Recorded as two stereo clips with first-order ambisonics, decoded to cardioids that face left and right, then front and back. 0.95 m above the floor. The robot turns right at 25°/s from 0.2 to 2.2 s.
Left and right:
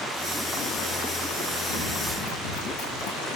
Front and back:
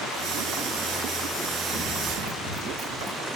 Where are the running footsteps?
105° left, 6 m; by 3.3 s 110° left, 6.5 m.